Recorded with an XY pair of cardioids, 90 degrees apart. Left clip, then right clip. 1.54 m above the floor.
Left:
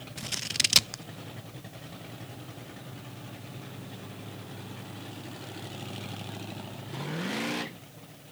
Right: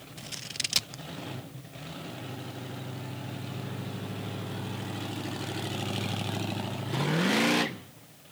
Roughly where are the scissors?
Ahead left.